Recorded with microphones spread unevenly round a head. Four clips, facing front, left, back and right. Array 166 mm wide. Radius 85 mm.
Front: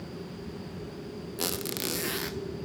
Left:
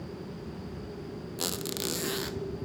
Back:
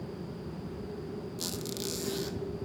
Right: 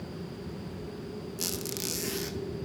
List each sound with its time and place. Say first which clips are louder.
1.4 s a squeak: left 4 dB, front 7 dB; 40° left, 0.6 m